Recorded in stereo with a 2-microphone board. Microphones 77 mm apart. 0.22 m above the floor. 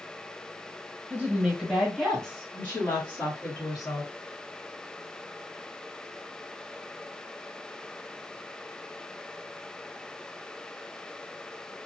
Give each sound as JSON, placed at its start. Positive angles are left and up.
{"t": 1.1, "sound": "a woman speaking", "side_deg": -25, "distance_m": 1.3}